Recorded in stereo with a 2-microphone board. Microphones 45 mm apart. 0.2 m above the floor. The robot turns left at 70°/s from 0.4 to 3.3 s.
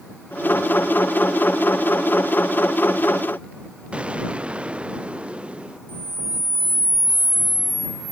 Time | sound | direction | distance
3.9 | an explosion | 25° right (ahead or behind) | ?
5.9 | a camera shutter | 35° right (ahead or behind) | ?